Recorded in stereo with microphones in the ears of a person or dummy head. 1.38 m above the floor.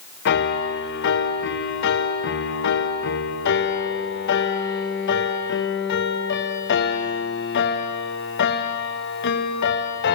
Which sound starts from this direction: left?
A piano, at 0.2 s.